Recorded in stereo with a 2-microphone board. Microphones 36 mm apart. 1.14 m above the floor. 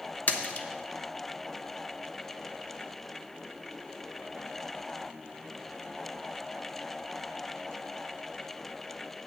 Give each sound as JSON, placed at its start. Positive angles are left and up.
{"t": 0.3, "sound": "a splash", "side_deg": 50, "distance_m": 0.8}